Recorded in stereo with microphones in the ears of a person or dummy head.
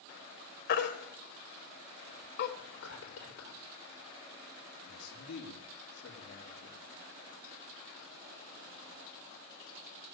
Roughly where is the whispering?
Left.